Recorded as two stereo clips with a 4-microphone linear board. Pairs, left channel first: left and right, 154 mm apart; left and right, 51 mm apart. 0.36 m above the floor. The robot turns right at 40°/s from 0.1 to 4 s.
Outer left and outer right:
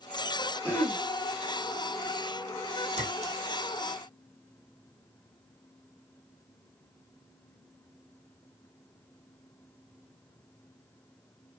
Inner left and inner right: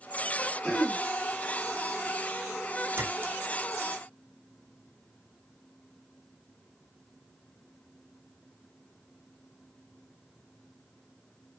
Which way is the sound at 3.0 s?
50° right (ahead or behind).